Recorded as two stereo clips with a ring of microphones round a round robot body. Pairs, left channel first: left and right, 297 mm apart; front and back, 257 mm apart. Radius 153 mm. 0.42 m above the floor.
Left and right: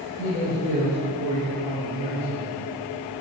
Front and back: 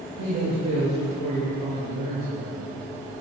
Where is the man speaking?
160° left, 6.5 m.